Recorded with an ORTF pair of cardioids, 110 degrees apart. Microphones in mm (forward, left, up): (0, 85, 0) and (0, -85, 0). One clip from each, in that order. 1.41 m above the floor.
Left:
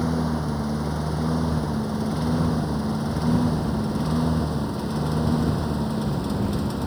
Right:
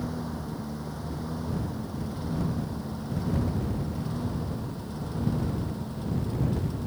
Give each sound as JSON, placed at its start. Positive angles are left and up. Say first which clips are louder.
{"t": 0.0, "sound": "a lawn mower", "louder": "left 9 dB", "azimuth_deg": 55}